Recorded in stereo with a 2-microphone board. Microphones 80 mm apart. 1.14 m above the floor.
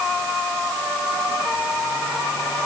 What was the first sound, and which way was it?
Only background noise.